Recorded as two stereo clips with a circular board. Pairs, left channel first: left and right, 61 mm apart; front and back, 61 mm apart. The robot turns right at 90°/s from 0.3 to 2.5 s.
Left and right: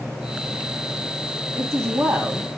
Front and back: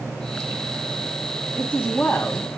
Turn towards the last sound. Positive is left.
turn(degrees=-45)